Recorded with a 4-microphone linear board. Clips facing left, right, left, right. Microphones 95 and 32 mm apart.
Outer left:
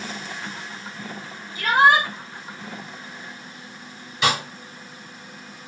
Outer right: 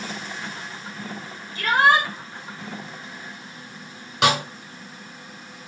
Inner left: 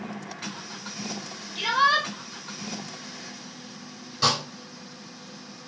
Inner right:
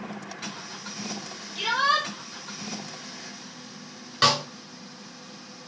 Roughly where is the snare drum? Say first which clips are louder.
Outer right 2 dB, inner right 3 dB; right.